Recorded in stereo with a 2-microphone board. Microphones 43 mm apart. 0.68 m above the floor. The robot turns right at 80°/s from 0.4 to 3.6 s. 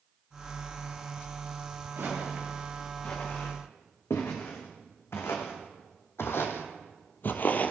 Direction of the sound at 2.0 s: 50° right (ahead or behind).